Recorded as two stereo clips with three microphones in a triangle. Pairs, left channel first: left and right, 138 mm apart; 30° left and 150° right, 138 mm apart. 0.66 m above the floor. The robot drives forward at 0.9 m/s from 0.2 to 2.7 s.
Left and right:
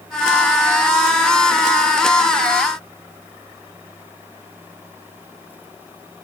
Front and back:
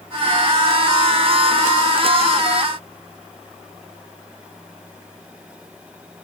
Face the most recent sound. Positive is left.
No sound to turn to.